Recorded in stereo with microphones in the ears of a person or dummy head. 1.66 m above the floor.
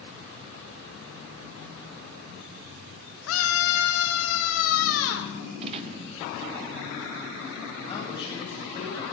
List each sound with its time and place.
3.3 s a scream: 85° left, 3.5 m; by 5.3 s 75° left (ahead or behind), 5.5 m
5.6 s a gunshot: 35° right (ahead or behind), 1.3 m
7.8 s a man speaking: 25° left (ahead or behind), 10 m